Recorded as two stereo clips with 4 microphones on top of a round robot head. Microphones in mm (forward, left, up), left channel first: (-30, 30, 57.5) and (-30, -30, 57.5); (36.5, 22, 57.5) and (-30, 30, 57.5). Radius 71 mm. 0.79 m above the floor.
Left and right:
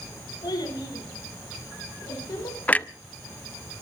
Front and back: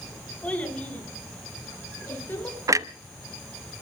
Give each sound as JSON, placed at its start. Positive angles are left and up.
{"t": 0.4, "sound": "a child speaking", "azimuth_deg": 65, "distance_m": 6.0}
{"t": 2.7, "sound": "a clunk", "azimuth_deg": 150, "distance_m": 0.9}